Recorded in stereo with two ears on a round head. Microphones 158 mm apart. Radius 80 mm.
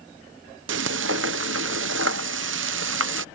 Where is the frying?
80° right.